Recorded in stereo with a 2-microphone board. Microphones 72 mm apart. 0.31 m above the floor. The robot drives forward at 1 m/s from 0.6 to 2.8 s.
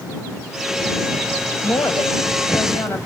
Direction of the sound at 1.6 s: 40° left (ahead or behind).